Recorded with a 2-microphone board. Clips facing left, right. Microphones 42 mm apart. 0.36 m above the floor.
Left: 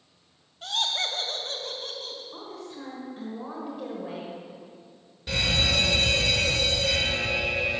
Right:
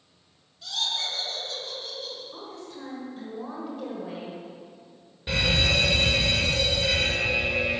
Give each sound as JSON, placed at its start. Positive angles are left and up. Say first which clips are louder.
{"t": 0.6, "sound": "laughter", "louder": "left 2 dB", "side_deg": 50, "distance_m": 1.7}
{"t": 2.3, "sound": "a woman speaking", "louder": "left 1 dB", "side_deg": 5, "distance_m": 1.6}
{"t": 5.3, "sound": "a fire alarm", "louder": "right 2 dB", "side_deg": -20, "distance_m": 2.0}